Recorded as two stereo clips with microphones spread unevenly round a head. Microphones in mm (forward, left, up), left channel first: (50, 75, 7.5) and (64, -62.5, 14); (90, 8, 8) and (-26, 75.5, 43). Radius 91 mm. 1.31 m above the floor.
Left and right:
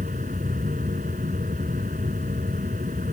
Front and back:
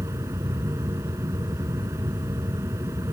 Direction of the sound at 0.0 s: 135° right.